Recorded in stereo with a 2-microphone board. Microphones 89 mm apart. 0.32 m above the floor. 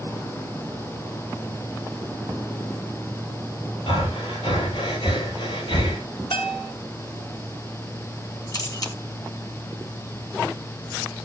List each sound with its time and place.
3.9 s breathing: 85° left, 8.5 m
6.3 s a bell: 75° left (ahead or behind), 1.4 m
8.5 s a camera shutter: 45° left (ahead or behind), 3 m